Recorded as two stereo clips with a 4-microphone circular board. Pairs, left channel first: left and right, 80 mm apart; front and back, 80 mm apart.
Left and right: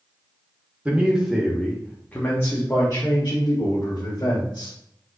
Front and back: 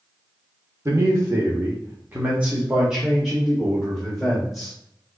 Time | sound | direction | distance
0.8 | a man speaking | 150° right | 1.2 m